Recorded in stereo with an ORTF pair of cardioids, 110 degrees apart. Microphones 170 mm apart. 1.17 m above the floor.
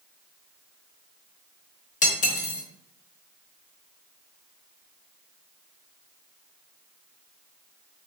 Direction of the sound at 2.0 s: 45° left.